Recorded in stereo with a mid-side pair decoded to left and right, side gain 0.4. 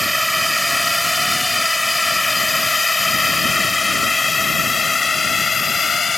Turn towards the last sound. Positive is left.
turn(degrees=40)